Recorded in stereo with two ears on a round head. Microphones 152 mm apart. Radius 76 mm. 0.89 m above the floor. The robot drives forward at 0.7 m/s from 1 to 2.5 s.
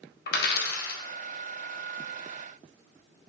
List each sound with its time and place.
0.3 s a dropped coin: 55° left (ahead or behind), 0.5 m